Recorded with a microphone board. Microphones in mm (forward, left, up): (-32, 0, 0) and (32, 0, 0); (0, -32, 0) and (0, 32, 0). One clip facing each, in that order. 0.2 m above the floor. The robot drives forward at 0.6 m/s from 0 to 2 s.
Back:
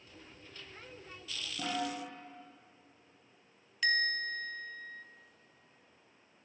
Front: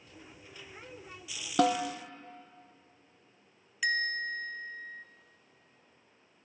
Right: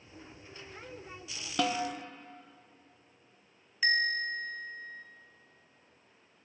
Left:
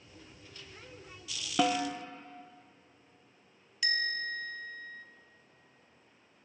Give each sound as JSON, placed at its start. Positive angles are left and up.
{"t": 1.6, "sound": "a snare drum", "azimuth_deg": 5, "distance_m": 1.0}
{"t": 3.8, "sound": "a bell", "azimuth_deg": -75, "distance_m": 0.5}